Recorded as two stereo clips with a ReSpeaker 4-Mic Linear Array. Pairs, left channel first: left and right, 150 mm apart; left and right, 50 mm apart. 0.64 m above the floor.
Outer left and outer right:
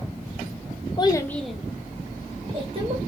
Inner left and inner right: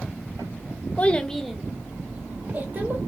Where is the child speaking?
30° left (ahead or behind), 0.5 m; by 3.0 s 40° right (ahead or behind), 1.3 m.